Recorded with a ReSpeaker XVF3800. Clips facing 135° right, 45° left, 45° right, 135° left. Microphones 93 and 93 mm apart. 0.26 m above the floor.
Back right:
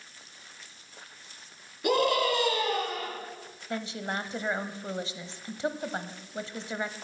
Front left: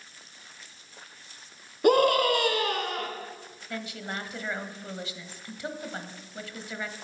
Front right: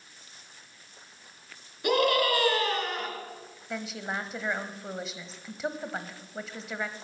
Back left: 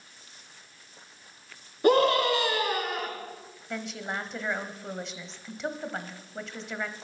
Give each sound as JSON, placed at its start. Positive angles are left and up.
{"t": 1.8, "sound": "a scream", "azimuth_deg": 85, "distance_m": 3.0}
{"t": 3.7, "sound": "a woman speaking", "azimuth_deg": -130, "distance_m": 1.0}